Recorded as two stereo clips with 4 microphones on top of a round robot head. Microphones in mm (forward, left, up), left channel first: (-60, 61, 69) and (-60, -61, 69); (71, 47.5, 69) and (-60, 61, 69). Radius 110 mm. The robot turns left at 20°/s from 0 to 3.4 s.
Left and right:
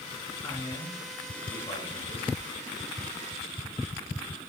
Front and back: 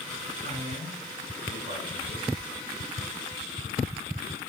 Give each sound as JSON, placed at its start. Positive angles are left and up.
{"t": 0.4, "sound": "a man speaking", "azimuth_deg": 165, "distance_m": 6.5}